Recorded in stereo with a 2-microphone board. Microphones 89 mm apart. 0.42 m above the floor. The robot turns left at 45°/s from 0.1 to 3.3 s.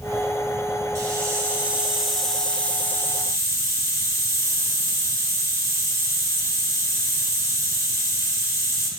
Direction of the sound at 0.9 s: 130° right.